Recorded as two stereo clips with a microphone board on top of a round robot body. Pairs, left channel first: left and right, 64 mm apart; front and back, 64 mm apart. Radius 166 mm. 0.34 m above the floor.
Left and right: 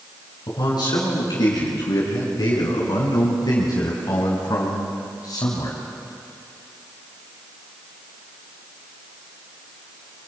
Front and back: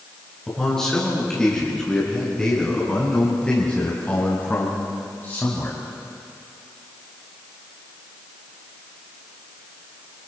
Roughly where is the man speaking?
Left.